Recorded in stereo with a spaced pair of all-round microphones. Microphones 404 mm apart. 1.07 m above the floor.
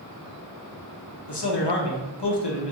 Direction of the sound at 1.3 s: 80° left.